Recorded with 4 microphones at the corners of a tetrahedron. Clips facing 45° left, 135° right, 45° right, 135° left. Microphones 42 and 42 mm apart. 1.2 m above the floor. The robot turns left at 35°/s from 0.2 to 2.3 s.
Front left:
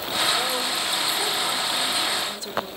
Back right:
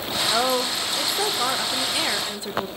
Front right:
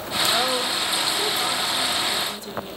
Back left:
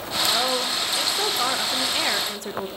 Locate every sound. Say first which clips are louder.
0.3 s a woman speaking: back right 3 dB, front right 1 dB; 130° right, 0.9 m; by 2.7 s 160° left, 0.9 m